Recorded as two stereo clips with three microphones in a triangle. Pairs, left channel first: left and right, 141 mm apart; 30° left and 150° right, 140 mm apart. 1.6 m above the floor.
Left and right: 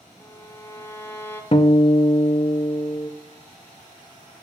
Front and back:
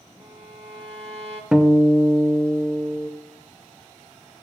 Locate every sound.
0.2 s a violin: 165° left, 1.0 m
1.5 s a guitar: 130° left, 0.6 m